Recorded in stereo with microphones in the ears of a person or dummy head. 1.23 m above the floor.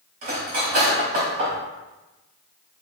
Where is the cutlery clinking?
40° right (ahead or behind), 1.1 m.